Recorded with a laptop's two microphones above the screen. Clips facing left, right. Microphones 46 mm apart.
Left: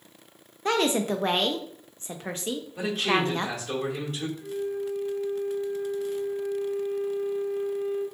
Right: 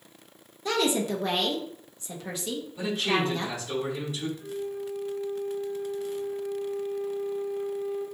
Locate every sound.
0.7 s a woman speaking: 40° left (ahead or behind), 0.6 m
2.8 s a man speaking: 65° left (ahead or behind), 2 m
4.4 s a flute: 85° left, 2.5 m